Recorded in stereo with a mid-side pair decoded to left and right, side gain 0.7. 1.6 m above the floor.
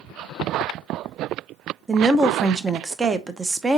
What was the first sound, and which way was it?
A woman speaking, 20° right.